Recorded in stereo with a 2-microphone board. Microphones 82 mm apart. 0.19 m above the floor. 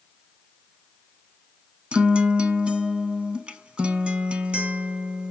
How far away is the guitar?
About 0.5 m.